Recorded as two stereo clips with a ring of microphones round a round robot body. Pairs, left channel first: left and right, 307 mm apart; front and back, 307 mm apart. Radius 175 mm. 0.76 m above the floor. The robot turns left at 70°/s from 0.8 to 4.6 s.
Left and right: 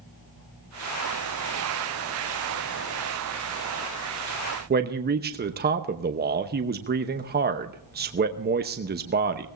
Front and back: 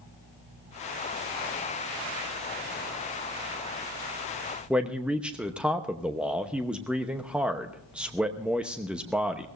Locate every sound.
4.7 s a man speaking: 95° right, 1.0 m